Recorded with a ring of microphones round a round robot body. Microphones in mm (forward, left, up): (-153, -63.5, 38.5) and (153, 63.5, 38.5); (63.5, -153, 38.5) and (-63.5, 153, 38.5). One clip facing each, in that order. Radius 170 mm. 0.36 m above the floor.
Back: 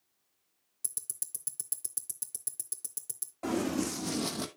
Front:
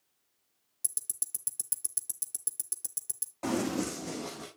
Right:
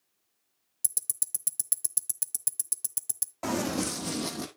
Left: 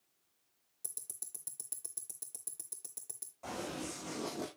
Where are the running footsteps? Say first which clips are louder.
Even, right 12 dB; 50° right, 1.4 m; by 4.5 s 135° right, 1.0 m.